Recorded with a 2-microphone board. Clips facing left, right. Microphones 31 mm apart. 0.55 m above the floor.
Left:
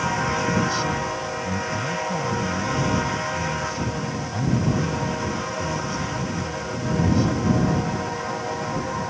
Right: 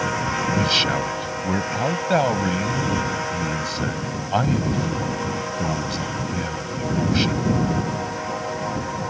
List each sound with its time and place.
0.6 s a man speaking: 75° right (ahead or behind)